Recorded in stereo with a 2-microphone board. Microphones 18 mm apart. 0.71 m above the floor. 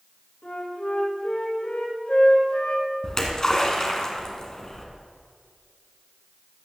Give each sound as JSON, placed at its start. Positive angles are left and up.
{"t": 0.4, "sound": "a flute", "side_deg": 75, "distance_m": 3.5}
{"t": 3.0, "sound": "a splash", "side_deg": 30, "distance_m": 1.9}